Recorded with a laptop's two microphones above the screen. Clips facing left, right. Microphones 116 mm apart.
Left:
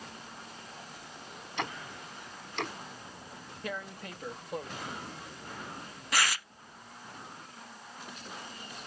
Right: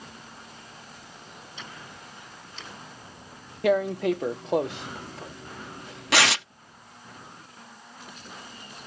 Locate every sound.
1.6 s ticking: 65° left (ahead or behind)
3.6 s tearing paper: 80° right